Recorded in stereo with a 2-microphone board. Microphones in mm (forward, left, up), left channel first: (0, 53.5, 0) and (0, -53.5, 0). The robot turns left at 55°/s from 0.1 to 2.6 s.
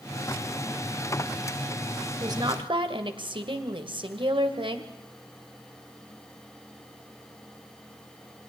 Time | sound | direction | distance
2.2 | a woman speaking | 35° right (ahead or behind) | 2 m